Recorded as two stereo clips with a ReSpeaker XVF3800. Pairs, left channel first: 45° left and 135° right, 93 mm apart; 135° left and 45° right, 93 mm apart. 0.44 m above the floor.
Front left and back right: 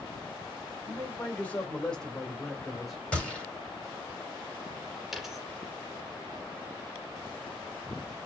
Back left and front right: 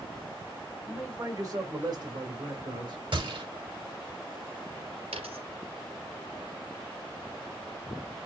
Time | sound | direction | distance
0.9 | a man speaking | 10° right | 1.6 m
3.1 | a gunshot | 35° right | 2.5 m
5.1 | a dropped coin | 45° right | 2.5 m